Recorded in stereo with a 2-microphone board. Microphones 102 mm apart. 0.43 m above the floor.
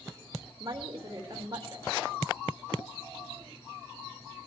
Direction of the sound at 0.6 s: 35° right (ahead or behind).